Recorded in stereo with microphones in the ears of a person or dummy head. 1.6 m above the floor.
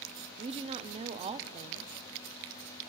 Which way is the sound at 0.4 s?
30° right (ahead or behind).